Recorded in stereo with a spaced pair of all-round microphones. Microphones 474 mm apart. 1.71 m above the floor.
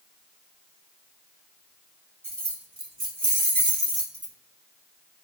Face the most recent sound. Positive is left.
turn(degrees=-5)  # may be behind; listen again after turning